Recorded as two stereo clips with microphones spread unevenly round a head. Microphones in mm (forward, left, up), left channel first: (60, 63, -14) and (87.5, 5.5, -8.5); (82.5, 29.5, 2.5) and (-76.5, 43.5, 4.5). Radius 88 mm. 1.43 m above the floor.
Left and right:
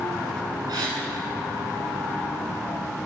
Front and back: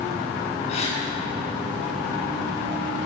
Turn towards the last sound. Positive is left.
turn(degrees=-65)